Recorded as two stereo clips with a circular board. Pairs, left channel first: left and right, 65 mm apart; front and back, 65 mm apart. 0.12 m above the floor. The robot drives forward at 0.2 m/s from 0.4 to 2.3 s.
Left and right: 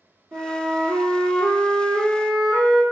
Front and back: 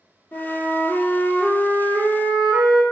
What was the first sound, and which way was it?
A flute, 65° right.